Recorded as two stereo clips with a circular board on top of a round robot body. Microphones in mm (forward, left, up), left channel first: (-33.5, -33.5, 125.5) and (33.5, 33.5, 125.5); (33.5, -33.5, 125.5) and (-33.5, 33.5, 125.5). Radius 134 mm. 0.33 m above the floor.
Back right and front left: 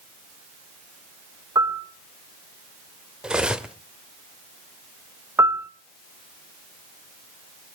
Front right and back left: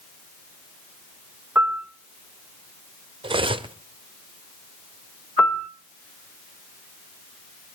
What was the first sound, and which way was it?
A piano, 70° left.